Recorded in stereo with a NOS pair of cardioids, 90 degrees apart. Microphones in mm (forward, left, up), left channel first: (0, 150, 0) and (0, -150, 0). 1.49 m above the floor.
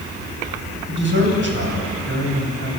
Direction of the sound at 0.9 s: 40° right.